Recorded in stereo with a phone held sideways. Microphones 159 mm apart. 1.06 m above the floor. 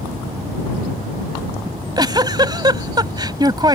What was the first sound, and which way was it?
A giggle, 25° right (ahead or behind).